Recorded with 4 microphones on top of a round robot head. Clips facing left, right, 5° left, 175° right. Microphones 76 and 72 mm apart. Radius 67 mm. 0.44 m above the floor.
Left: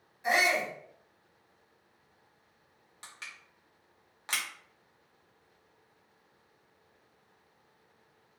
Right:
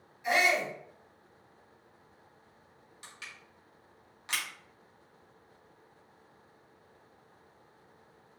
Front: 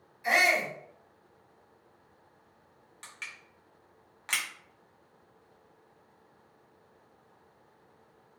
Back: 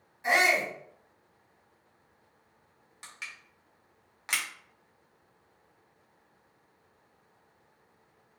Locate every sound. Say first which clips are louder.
0.2 s a shout: even, back 1 dB; 130° left, 1.8 m
3.0 s crushing: left 1 dB, even; 105° left, 1.5 m